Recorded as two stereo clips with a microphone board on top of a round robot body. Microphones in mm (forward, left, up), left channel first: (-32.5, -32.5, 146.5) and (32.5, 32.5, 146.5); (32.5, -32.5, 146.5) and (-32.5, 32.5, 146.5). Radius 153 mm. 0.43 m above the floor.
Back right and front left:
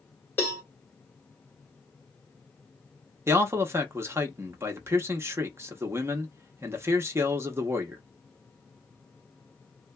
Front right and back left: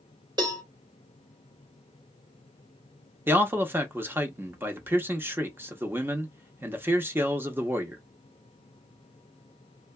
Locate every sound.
0.4 s a cowbell: 160° left, 2 m
3.3 s a man speaking: 85° left, 0.9 m